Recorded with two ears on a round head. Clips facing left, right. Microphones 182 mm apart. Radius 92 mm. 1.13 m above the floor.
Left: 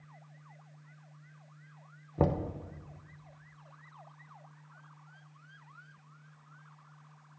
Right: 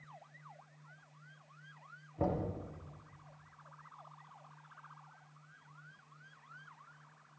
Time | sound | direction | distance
2.2 | knocking | 75° left (ahead or behind) | 0.7 m